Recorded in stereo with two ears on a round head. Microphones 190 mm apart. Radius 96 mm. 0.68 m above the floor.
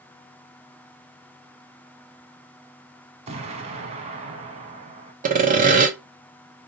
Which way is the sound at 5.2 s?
40° right (ahead or behind).